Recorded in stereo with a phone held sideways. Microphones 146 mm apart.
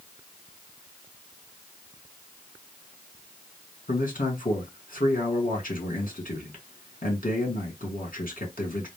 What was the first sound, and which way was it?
A man speaking, 70° left (ahead or behind).